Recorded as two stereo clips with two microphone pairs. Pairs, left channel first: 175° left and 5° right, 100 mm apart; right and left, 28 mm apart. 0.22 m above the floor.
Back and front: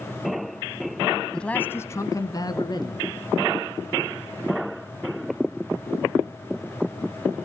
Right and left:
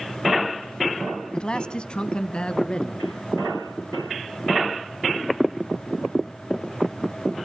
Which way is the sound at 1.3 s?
110° right.